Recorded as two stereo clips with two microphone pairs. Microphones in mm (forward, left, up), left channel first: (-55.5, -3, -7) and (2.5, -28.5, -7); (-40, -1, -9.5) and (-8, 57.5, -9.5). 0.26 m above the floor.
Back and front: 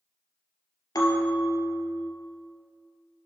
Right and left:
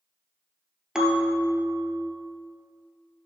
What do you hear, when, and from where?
0.9 s a bell: 140° left, 1.7 m